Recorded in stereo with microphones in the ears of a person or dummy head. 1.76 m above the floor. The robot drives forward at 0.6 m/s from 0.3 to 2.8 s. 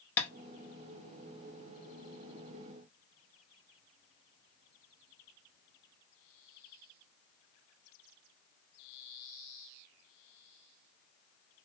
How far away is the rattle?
No rattle in this recording.